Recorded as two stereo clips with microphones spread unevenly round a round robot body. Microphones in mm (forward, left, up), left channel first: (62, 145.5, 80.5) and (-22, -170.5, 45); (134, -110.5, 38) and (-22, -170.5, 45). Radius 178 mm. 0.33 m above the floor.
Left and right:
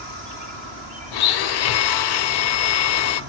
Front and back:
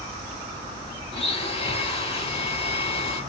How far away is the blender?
About 0.6 m.